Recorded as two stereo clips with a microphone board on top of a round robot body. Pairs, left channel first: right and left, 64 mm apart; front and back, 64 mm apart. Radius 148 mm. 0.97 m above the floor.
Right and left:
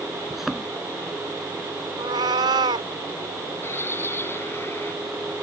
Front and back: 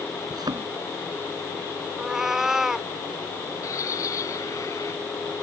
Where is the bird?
35° right.